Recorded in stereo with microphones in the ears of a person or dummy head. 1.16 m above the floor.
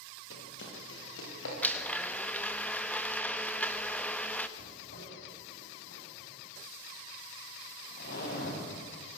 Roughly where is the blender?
Centre.